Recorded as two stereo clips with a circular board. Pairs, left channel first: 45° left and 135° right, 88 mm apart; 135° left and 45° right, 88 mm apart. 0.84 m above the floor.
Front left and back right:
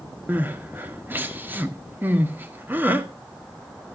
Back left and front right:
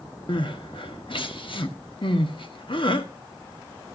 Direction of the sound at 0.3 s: 155° left.